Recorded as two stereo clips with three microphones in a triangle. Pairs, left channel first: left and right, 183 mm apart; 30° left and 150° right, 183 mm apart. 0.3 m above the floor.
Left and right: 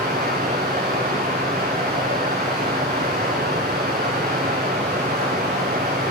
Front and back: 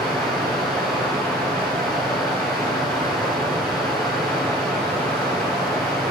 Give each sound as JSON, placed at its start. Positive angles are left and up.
{"t": 0.0, "sound": "running water", "azimuth_deg": -55, "distance_m": 3.0}